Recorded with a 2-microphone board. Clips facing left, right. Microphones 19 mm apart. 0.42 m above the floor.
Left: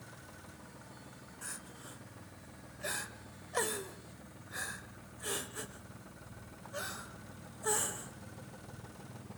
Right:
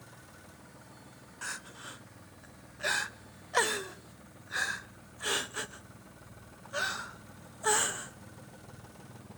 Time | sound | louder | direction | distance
1.4 | crying | right 8 dB | 35° right (ahead or behind) | 0.6 m